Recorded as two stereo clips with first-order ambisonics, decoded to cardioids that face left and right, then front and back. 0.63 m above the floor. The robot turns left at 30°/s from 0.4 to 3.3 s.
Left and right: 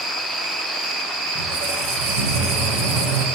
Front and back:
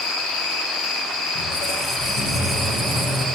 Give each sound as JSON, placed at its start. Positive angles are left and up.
{"t": 0.0, "sound": "an insect", "azimuth_deg": -30, "distance_m": 8.0}
{"t": 1.4, "sound": "a squeak", "azimuth_deg": -55, "distance_m": 9.0}